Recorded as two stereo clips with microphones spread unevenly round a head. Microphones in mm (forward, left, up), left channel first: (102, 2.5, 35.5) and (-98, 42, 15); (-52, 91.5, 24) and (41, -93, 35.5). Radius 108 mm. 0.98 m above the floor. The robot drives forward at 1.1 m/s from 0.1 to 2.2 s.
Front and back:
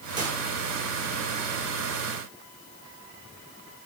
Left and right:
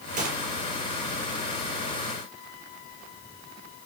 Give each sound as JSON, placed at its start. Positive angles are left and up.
{"t": 0.2, "sound": "a gunshot", "azimuth_deg": -120, "distance_m": 6.0}